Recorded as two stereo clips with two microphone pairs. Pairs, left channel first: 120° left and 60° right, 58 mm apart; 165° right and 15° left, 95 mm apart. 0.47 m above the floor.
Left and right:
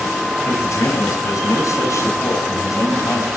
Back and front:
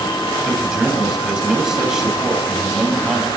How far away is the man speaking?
About 2.5 m.